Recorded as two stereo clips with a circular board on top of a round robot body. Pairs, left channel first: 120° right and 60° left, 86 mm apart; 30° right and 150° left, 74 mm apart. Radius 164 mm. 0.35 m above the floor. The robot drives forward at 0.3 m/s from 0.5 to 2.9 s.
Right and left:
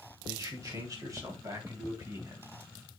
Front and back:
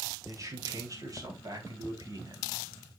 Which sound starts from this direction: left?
A man speaking, at 0.2 s.